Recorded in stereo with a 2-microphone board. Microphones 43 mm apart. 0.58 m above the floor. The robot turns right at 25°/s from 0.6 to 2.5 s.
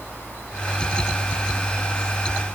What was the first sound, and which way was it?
Only background noise.